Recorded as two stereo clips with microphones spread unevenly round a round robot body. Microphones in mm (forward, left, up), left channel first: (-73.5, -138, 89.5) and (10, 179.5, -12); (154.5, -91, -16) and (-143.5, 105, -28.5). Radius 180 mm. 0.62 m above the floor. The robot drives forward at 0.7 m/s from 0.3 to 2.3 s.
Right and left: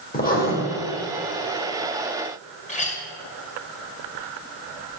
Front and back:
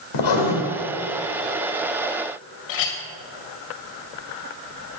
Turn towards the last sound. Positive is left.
turn(degrees=-30)